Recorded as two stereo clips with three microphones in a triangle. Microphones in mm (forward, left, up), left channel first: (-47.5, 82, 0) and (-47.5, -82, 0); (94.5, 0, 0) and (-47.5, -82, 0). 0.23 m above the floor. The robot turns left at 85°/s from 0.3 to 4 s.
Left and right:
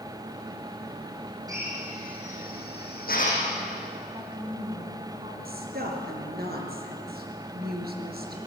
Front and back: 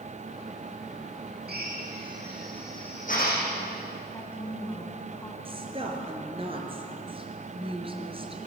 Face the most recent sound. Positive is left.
turn(degrees=-95)